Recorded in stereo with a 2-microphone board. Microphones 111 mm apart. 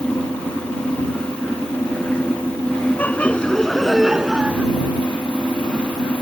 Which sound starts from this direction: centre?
Laughter, at 3.0 s.